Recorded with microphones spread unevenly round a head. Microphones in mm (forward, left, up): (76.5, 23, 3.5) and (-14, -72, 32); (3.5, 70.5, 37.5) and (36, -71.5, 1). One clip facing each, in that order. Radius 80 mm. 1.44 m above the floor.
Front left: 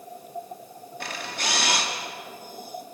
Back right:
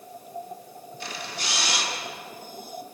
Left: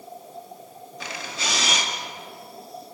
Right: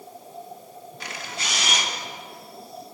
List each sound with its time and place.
1.0 s a camera shutter: 100° left, 2 m